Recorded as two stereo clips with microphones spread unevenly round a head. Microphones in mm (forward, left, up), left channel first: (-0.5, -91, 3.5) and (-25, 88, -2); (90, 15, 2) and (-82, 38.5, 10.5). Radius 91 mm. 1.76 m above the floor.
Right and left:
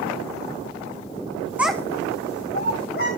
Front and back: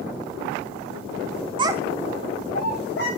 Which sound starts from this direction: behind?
A child speaking, at 1.6 s.